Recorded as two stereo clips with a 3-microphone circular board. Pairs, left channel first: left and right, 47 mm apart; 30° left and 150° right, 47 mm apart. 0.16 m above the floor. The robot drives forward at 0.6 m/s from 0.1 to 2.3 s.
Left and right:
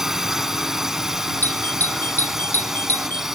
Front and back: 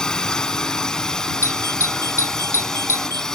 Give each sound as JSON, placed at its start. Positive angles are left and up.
{"t": 0.0, "sound": "a drone", "azimuth_deg": -20}
{"t": 1.4, "sound": "a doorbell", "azimuth_deg": 45}